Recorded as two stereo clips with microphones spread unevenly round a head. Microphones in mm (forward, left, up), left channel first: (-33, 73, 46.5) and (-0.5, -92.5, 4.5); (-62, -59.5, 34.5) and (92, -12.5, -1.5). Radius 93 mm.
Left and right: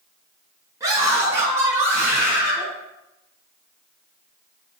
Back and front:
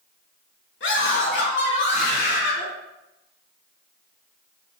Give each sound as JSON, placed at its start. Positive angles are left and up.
{"t": 0.8, "sound": "a scream", "azimuth_deg": -150, "distance_m": 3.5}